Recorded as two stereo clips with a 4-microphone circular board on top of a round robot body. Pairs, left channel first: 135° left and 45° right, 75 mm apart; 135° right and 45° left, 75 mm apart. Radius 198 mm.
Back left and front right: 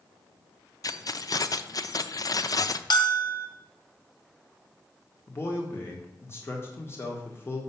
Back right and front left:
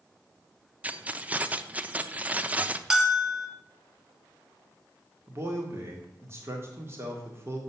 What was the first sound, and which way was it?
Keys jangling, 110° left.